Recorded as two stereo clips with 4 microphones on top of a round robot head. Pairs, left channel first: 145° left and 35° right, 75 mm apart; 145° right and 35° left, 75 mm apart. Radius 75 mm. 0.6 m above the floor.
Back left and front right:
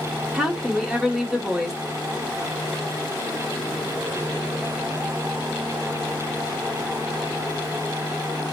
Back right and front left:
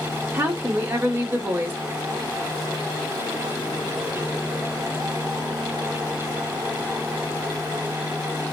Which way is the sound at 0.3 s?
35° left.